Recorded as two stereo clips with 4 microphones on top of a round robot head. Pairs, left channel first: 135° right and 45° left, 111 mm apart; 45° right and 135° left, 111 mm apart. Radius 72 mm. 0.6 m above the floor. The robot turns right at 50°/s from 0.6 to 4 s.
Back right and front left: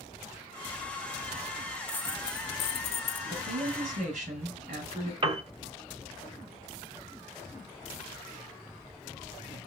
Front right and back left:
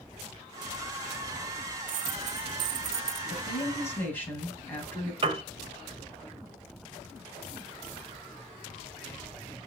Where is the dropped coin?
140° left, 0.9 m; by 3.2 s 155° right, 0.9 m.